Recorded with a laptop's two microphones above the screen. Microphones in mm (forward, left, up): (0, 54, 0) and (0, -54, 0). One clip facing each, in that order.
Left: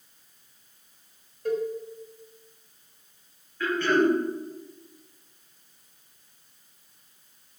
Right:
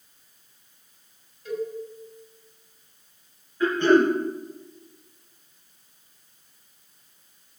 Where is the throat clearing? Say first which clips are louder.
Right 4 dB; 20° right (ahead or behind), 4 m.